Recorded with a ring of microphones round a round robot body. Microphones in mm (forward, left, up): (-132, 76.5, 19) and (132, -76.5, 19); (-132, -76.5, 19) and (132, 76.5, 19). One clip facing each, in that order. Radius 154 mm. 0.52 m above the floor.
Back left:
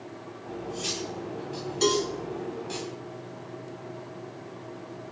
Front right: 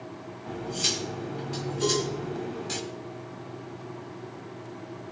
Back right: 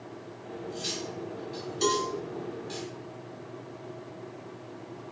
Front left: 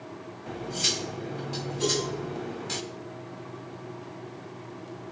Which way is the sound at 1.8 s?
175° left.